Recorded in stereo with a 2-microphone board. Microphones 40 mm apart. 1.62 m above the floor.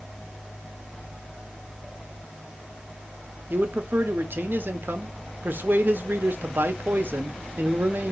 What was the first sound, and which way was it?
A man speaking, 60° right (ahead or behind).